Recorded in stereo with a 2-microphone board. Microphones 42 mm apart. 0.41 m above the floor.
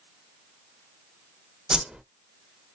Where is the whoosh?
20° right (ahead or behind), 0.6 m.